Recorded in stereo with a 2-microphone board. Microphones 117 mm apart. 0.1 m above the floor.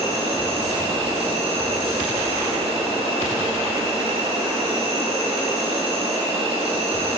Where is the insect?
55° right (ahead or behind), 3 m.